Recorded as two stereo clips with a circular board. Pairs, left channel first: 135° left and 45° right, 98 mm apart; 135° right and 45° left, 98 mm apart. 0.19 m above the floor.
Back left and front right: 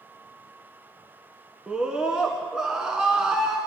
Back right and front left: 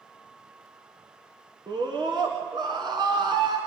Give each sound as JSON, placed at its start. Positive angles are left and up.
{"t": 1.7, "sound": "a scream", "azimuth_deg": 35, "distance_m": 1.9}